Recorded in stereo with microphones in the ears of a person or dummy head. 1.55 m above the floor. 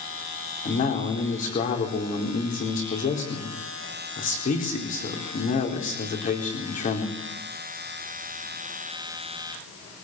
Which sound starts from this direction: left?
A man speaking, at 0.7 s.